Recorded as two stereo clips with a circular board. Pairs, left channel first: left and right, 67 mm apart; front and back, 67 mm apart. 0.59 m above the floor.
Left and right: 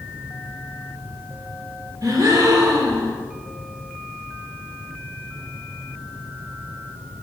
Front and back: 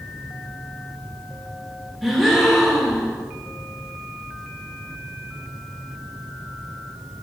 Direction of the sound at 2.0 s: 85° right.